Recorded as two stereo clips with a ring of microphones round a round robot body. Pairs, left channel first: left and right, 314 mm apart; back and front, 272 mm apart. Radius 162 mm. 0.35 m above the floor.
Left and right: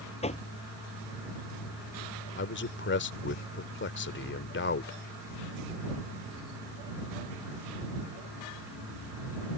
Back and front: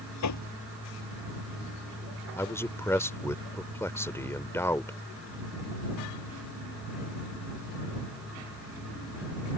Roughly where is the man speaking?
Left.